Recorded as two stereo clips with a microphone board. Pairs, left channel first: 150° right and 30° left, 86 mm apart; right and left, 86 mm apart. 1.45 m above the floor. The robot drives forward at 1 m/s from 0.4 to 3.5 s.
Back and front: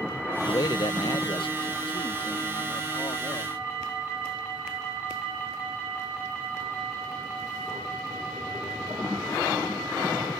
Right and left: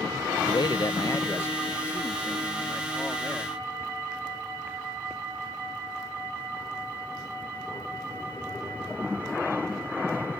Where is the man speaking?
105° right; by 3.6 s 165° right.